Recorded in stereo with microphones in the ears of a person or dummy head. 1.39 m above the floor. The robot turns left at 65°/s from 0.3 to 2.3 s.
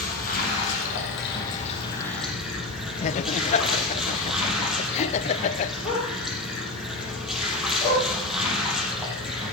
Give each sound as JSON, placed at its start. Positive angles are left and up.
{"t": 0.0, "sound": "running water", "azimuth_deg": 130, "distance_m": 4.5}
{"t": 3.0, "sound": "laughter", "side_deg": 35, "distance_m": 0.6}
{"t": 5.8, "sound": "a dog barking", "side_deg": 15, "distance_m": 7.0}